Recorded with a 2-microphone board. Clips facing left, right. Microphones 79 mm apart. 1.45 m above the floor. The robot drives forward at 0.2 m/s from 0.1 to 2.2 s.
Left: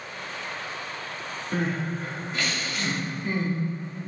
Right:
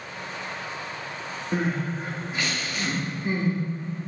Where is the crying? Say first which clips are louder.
Right 1 dB; 10° right (ahead or behind), 1.4 m.